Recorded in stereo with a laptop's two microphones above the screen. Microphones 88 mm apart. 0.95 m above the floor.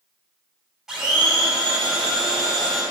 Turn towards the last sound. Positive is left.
turn(degrees=-5)  # may be behind; listen again after turning